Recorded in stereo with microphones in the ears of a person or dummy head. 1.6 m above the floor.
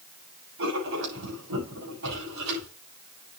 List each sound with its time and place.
0.6 s writing: 65° right (ahead or behind), 7 m